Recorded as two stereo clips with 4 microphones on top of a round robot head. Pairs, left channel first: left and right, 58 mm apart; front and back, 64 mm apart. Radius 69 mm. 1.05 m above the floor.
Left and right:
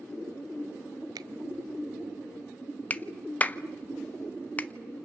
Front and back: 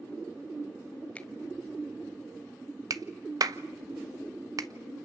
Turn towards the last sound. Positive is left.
turn(degrees=155)